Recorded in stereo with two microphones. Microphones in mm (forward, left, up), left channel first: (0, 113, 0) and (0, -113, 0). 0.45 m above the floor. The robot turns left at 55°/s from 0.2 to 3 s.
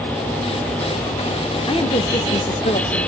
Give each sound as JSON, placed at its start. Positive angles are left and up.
{"t": 1.7, "sound": "a woman speaking", "azimuth_deg": 135, "distance_m": 1.0}